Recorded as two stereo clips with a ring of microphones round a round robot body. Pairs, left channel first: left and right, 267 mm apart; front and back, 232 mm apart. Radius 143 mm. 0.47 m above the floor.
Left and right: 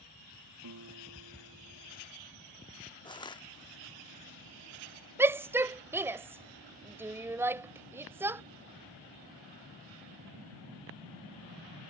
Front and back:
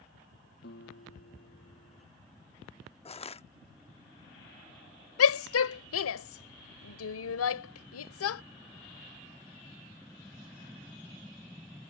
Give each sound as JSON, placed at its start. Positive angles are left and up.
{"t": 0.6, "sound": "a guitar", "azimuth_deg": -55}
{"t": 3.0, "sound": "crushing", "azimuth_deg": 35}
{"t": 5.2, "sound": "a shout", "azimuth_deg": -10}